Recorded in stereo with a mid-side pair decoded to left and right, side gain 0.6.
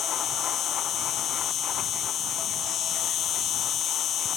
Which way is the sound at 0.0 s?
55° left.